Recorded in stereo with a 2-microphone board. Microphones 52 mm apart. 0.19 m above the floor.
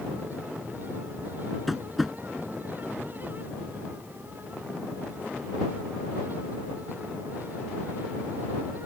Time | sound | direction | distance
1.7 | tapping | centre (ahead or behind) | ?